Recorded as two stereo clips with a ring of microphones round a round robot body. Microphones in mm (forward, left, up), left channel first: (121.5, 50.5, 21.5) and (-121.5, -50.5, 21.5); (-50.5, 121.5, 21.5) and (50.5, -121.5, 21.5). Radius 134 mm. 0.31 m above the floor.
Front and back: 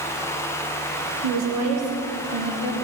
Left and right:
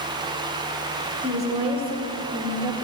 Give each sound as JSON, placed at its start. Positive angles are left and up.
{"t": 1.2, "sound": "a woman speaking", "azimuth_deg": -135, "distance_m": 4.0}